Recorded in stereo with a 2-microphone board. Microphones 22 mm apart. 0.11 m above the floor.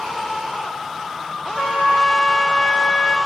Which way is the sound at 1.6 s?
40° left (ahead or behind).